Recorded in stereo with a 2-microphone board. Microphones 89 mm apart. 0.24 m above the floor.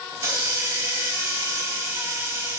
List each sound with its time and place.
0.1 s a hiss: 35° right (ahead or behind), 0.6 m